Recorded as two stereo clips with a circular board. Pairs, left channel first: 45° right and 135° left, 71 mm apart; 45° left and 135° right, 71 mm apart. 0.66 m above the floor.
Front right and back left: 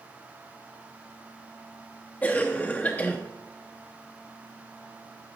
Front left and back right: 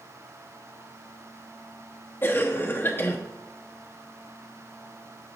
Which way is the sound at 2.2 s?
10° left.